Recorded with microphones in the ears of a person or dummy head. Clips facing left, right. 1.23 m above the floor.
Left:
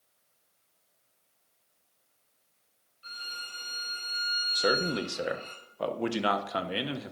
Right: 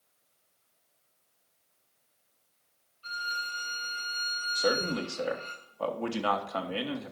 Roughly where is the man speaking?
Left.